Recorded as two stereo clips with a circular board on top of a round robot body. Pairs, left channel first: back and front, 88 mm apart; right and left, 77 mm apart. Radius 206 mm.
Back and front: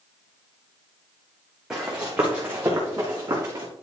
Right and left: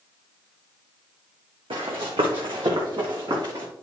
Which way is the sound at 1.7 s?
80° left.